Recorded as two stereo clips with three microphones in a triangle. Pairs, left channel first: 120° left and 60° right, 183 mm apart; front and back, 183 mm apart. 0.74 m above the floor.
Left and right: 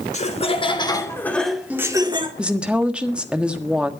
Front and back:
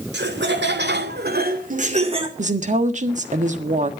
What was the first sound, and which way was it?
Laughter, 170° left.